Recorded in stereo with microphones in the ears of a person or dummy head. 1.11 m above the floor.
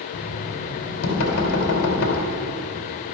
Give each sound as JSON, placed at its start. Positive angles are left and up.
{"t": 0.1, "sound": "knocking", "side_deg": 70, "distance_m": 3.5}